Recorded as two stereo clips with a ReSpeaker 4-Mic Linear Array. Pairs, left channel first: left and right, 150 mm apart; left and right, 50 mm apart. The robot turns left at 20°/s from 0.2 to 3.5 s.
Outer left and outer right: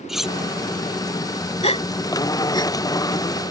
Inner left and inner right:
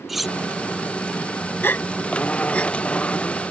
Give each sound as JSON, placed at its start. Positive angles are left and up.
{"t": 0.1, "sound": "cutlery clinking", "side_deg": 0}
{"t": 1.6, "sound": "a gasp", "side_deg": 45}